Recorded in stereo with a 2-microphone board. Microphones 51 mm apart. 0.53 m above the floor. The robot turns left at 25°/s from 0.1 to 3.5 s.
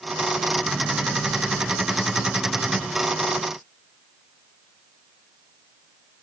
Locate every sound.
Only background noise.